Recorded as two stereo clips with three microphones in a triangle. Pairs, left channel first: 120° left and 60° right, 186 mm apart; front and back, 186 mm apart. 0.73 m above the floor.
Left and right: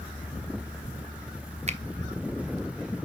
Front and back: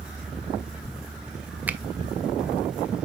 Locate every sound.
1.7 s a finger snap: 100° right, 0.5 m